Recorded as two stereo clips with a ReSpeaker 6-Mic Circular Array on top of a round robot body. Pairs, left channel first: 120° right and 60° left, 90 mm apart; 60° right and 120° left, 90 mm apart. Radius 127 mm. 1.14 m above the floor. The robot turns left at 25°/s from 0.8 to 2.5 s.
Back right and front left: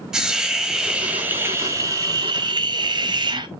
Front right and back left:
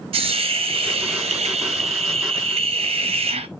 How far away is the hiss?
About 1.1 m.